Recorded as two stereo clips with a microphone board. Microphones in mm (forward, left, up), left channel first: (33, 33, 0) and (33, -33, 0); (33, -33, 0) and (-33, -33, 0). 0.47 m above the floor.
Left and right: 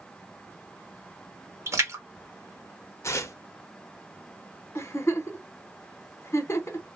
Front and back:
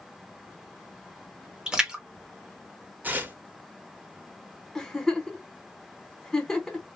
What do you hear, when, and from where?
1.7 s a splash: 105° right, 0.9 m
3.0 s tearing paper: 120° left, 0.5 m
4.8 s a giggle: 80° left, 0.9 m